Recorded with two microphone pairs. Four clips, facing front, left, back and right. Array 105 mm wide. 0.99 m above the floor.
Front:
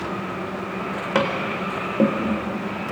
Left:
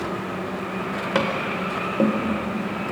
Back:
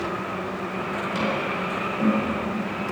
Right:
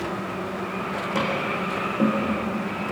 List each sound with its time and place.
1.1 s tapping: 40° left, 3.5 m